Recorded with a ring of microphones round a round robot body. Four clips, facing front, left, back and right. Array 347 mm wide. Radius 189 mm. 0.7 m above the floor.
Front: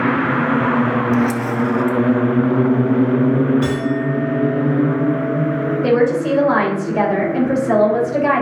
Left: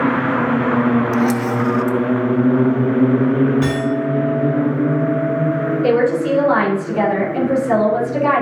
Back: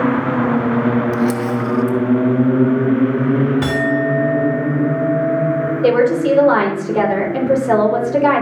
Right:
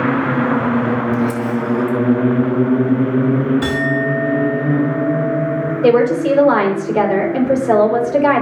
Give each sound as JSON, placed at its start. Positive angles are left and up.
{"t": 1.1, "sound": "a camera shutter", "azimuth_deg": 110, "distance_m": 0.6}
{"t": 3.6, "sound": "a clink", "azimuth_deg": -170, "distance_m": 4.5}
{"t": 5.8, "sound": "a woman speaking", "azimuth_deg": -140, "distance_m": 3.5}